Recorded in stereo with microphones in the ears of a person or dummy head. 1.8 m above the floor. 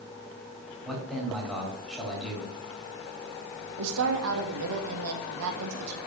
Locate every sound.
0.8 s a man speaking: centre (ahead or behind), 4 m
3.8 s a woman speaking: 75° right (ahead or behind), 2 m